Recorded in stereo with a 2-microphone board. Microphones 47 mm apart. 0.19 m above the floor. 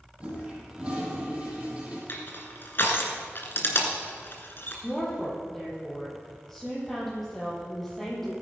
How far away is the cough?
I don't hear a cough.